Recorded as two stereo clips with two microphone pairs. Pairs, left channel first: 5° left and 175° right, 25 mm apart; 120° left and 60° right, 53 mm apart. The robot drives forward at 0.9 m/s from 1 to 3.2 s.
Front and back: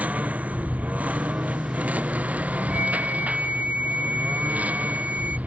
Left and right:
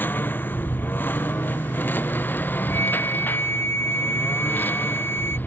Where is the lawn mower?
170° left; by 5.5 s 175° left.